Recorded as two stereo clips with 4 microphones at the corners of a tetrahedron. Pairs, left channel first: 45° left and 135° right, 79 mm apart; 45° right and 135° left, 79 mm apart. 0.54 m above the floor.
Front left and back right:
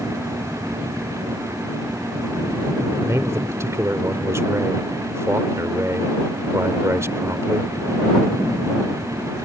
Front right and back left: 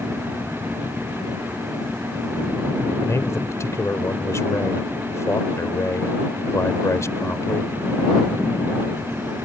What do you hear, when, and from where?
3.0 s a man speaking: 90° right